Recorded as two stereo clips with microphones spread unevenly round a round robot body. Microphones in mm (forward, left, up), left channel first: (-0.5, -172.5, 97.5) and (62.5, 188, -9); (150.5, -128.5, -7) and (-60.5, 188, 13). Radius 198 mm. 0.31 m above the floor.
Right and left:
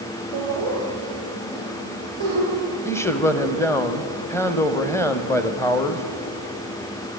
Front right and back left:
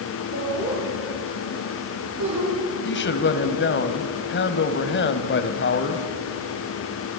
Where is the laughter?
60° left, 6.5 m; by 2.5 s 80° left, 6.5 m.